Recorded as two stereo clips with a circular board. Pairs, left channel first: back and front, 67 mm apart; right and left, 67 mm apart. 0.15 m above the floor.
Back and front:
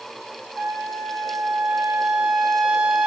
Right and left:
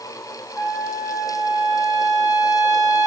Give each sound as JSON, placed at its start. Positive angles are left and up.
{"t": 0.6, "sound": "a trumpet", "azimuth_deg": 60, "distance_m": 2.5}